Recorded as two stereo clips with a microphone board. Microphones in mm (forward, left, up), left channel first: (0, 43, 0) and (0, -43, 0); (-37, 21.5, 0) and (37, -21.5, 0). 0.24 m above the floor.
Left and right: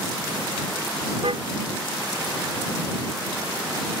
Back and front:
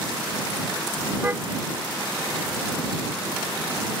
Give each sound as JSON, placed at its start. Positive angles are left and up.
{"t": 1.2, "sound": "a car horn", "azimuth_deg": -100}